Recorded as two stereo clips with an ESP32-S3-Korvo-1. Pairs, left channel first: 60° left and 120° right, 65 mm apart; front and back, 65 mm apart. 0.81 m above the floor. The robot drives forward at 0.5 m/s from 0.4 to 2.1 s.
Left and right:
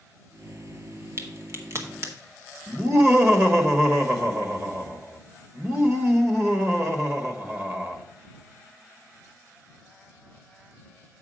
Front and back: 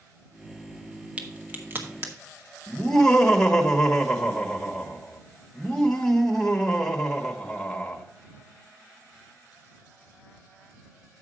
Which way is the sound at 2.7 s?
80° right.